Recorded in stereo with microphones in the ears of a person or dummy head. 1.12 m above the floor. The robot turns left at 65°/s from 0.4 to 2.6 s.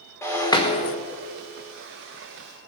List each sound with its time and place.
0.2 s breaking glass: 160° left, 1.3 m; by 0.9 s 125° left, 1.3 m